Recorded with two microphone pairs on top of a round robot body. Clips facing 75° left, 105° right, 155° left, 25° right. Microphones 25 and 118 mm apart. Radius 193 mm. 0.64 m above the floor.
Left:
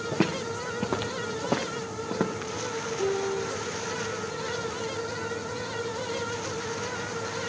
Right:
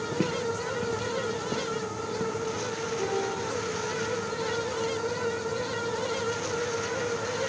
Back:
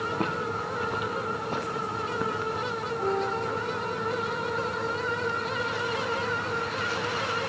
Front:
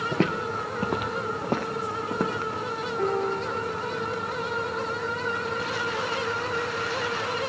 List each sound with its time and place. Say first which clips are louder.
0.1 s footsteps: left 1 dB, front 7 dB; 15° right, 0.6 m; by 2.5 s 20° left, 2.5 m
3.0 s a piano: left 3 dB, front 2 dB; 20° right, 6 m